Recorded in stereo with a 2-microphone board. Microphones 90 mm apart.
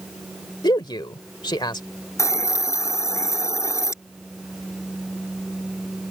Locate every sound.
0.6 s a man speaking: 60° left (ahead or behind)
2.2 s a hiss: 35° left (ahead or behind)